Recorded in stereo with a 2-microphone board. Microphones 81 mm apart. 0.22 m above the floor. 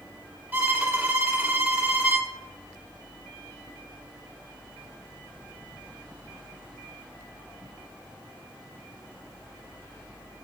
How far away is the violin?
About 0.8 m.